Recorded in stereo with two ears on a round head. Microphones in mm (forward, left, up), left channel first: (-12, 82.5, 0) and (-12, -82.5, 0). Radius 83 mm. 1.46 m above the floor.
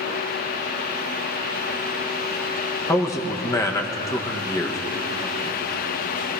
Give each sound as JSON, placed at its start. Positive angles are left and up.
{"t": 2.9, "sound": "a man speaking", "side_deg": 15, "distance_m": 0.9}